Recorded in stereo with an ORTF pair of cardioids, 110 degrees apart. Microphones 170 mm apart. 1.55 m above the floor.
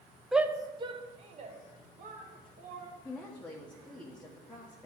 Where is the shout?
Straight ahead, 0.5 m; by 2.9 s 50° right, 2.5 m.